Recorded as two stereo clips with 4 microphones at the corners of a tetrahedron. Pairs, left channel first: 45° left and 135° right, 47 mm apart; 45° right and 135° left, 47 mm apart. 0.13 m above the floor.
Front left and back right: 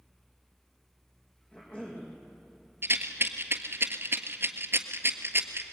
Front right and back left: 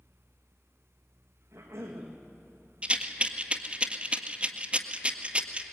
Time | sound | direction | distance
1.5 | a cough | 110° left | 6.5 m
2.8 | a rattle | 160° right | 1.6 m